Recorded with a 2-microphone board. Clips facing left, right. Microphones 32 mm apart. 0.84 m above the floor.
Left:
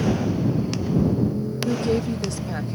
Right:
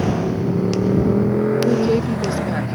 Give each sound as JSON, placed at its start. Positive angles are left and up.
{"t": 0.0, "sound": "a motorcycle", "side_deg": -70}
{"t": 1.6, "sound": "a woman speaking", "side_deg": -20}